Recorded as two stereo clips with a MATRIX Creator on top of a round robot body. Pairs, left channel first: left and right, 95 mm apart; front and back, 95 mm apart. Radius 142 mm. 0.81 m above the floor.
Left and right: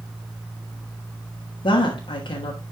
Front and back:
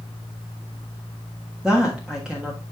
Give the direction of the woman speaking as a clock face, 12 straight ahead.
9 o'clock.